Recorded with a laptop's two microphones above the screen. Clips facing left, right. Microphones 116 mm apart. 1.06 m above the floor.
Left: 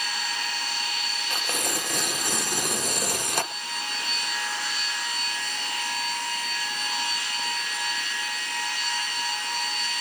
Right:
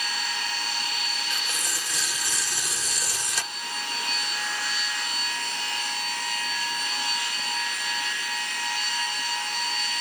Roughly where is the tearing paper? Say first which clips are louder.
Left 4 dB; left.